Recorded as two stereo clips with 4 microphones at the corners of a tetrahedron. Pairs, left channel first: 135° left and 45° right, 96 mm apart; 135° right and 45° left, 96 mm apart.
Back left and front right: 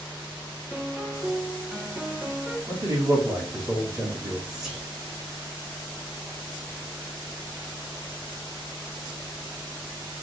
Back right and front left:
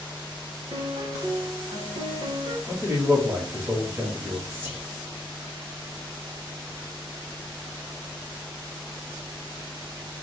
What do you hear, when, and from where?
0.7 s a piano: 25° left, 1.1 m
2.7 s a man speaking: 10° right, 1.7 m
4.5 s whispering: 30° left, 1.6 m